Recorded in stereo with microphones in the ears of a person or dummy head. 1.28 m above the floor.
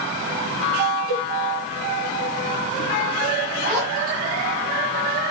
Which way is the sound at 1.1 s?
15° right (ahead or behind).